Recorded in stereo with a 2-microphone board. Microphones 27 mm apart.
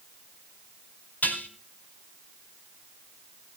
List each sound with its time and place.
1.2 s dishes clattering: 80° left, 3 m